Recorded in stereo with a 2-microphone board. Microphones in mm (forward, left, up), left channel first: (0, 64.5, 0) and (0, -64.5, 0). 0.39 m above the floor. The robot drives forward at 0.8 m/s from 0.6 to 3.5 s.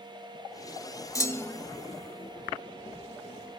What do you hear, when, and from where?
1.1 s a clunk: 25° left (ahead or behind), 0.6 m; by 1.6 s 15° left (ahead or behind), 0.9 m